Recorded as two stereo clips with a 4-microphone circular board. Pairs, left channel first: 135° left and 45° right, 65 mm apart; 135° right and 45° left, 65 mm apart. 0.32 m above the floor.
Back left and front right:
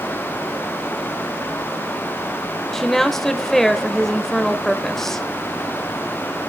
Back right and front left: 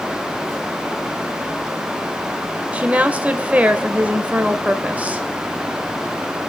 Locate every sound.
2.7 s a woman speaking: 60° left, 1.2 m